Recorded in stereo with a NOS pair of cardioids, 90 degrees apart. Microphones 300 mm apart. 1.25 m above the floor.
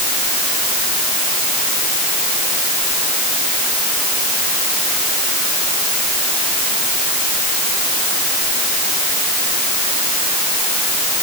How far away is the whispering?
No whispering in this recording.